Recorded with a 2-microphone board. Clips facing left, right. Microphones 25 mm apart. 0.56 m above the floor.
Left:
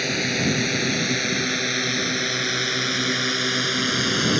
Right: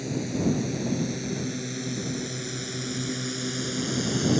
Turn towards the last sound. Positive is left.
turn(degrees=40)  # may be behind; listen again after turning